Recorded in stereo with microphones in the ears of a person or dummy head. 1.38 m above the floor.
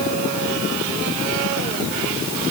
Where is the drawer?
I don't hear a drawer.